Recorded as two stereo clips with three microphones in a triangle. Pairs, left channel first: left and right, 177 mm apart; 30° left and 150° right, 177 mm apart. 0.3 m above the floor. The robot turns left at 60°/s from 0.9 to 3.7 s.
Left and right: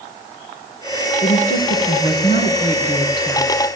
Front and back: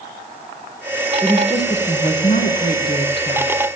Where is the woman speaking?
145° left, 3.5 m; by 3.7 s 5° right, 3.5 m.